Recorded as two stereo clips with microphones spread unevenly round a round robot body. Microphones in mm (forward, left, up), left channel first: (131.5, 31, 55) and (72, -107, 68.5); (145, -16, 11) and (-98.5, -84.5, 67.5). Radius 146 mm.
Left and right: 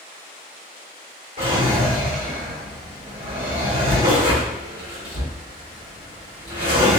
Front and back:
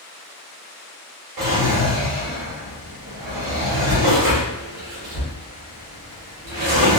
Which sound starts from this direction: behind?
A drawer, at 1.4 s.